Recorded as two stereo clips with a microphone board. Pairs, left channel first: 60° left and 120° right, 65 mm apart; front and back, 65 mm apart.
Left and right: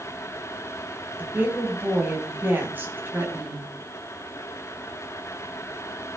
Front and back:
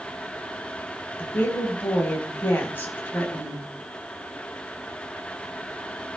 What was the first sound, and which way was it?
A woman speaking, 60° right.